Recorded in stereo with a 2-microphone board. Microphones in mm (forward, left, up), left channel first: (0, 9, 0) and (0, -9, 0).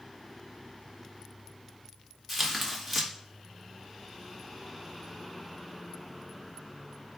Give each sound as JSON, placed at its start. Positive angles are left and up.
{"t": 2.3, "sound": "tearing paper", "side_deg": 5, "distance_m": 1.7}